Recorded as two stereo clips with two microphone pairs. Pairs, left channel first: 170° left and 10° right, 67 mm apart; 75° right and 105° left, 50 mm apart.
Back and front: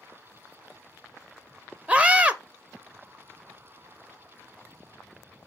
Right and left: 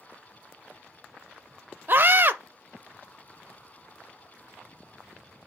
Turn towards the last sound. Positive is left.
turn(degrees=60)